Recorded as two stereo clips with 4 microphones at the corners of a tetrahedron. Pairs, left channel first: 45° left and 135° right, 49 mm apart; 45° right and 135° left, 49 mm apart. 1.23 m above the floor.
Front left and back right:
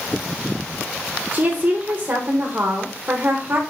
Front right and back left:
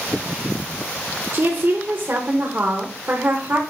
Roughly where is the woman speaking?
Behind.